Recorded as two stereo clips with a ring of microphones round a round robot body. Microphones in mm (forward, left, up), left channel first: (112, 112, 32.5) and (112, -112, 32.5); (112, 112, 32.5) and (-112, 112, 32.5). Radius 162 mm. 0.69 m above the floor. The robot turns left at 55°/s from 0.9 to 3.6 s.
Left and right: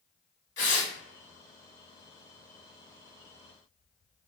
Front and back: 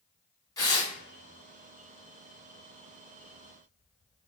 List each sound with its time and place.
0.6 s tearing paper: 70° left, 1.4 m